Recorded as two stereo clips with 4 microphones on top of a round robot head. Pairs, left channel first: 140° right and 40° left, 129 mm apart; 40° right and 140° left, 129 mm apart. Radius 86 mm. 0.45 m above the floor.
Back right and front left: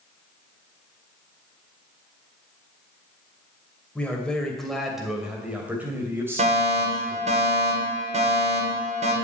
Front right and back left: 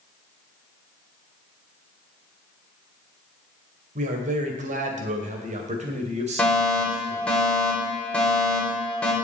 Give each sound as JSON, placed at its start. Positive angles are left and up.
{"t": 4.0, "sound": "a man speaking", "azimuth_deg": 140, "distance_m": 2.5}
{"t": 6.4, "sound": "a fire alarm", "azimuth_deg": 40, "distance_m": 3.0}